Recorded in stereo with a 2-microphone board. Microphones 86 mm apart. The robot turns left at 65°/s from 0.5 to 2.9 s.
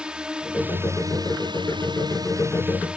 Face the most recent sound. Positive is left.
turn(degrees=-170)